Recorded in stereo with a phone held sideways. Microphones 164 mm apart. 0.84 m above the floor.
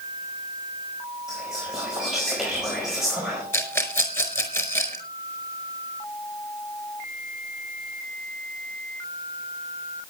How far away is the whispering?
About 5 m.